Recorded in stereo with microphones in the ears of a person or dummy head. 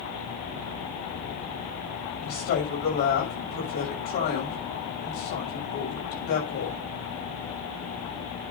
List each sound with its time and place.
2.2 s a woman speaking: 65° left (ahead or behind), 6 m